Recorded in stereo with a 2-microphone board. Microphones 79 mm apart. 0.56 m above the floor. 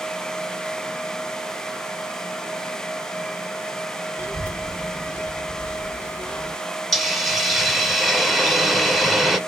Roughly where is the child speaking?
Centre.